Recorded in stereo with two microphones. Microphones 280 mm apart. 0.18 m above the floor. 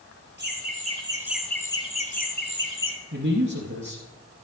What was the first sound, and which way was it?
Laughter, 40° right (ahead or behind).